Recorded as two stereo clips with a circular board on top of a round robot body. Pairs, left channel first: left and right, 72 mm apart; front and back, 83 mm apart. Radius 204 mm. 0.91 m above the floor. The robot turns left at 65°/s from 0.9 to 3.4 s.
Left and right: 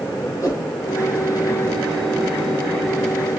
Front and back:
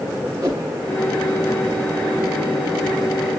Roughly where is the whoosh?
Behind left.